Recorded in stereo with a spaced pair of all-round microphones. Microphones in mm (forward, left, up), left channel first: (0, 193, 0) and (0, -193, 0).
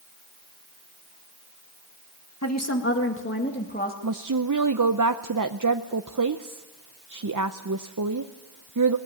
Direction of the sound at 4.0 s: 50° right (ahead or behind).